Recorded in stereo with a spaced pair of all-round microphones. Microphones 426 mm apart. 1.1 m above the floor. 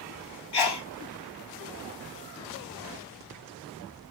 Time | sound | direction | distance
0.5 | a sneeze | 65° left (ahead or behind) | 0.5 m